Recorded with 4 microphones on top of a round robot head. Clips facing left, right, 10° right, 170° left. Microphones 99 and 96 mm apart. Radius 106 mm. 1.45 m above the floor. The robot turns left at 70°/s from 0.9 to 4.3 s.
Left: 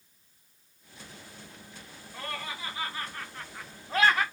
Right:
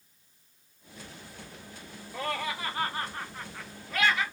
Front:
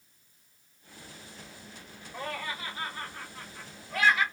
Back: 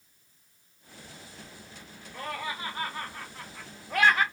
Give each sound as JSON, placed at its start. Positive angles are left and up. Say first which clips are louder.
{"t": 2.1, "sound": "laughter", "louder": "right 6 dB, back 1 dB", "azimuth_deg": -85, "distance_m": 0.7}